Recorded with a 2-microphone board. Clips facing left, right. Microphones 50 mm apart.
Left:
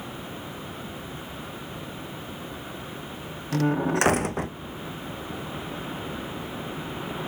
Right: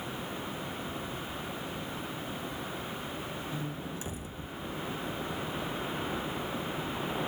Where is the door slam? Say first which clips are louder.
Left 14 dB; 80° left.